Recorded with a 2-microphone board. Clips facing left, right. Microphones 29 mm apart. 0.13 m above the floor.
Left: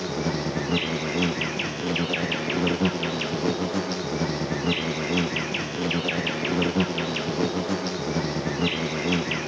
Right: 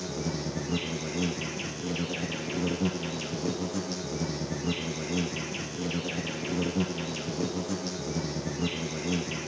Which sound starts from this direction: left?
An insect, at 0.0 s.